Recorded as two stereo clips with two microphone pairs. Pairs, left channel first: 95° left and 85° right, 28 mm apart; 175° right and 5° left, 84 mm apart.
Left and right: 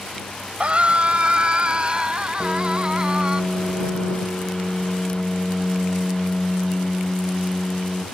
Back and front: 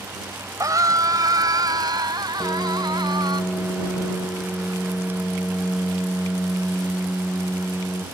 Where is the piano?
135° right.